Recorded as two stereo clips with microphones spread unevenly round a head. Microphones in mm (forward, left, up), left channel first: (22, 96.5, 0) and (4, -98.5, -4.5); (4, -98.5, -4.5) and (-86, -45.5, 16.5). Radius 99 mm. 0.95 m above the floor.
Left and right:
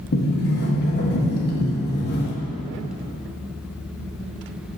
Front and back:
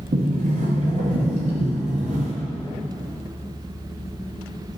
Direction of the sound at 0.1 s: 125° left.